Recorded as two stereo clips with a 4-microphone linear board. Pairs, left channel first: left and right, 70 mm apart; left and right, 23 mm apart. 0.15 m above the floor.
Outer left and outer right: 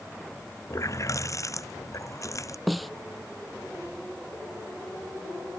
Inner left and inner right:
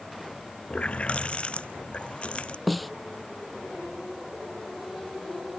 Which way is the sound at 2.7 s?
Centre (ahead or behind).